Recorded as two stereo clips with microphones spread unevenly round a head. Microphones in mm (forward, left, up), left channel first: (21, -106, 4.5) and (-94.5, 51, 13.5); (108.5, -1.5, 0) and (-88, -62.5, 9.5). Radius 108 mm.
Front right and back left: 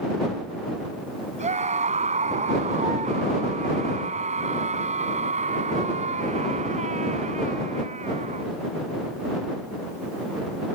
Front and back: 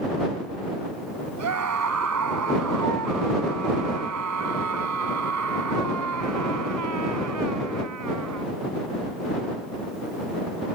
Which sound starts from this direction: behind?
A scream, at 1.4 s.